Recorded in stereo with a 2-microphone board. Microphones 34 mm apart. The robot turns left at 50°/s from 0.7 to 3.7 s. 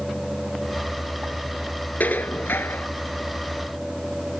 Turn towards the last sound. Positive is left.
turn(degrees=40)